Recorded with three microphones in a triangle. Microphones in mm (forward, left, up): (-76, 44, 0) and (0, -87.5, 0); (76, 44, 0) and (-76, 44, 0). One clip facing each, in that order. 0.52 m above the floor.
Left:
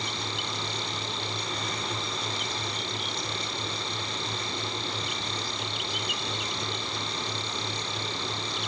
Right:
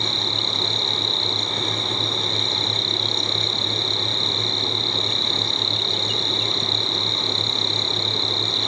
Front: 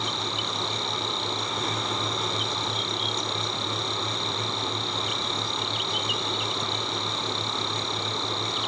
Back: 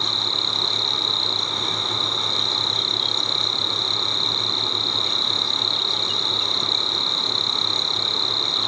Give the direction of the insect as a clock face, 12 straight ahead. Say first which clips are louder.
Right 6 dB, even; 4 o'clock.